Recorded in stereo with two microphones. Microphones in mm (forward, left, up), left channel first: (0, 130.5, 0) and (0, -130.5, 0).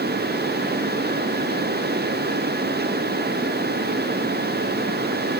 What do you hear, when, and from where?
Only background noise.